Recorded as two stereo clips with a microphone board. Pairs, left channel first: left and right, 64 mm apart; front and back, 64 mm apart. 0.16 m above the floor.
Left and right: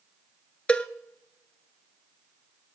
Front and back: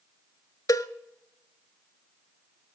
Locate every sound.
0.7 s a cowbell: 15° left, 0.5 m